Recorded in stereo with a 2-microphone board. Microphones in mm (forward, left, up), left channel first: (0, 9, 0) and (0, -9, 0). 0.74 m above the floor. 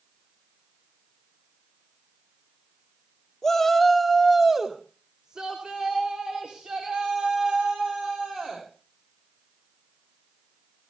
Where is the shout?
25° left (ahead or behind), 1.8 m; by 8.6 s 70° right (ahead or behind), 7 m.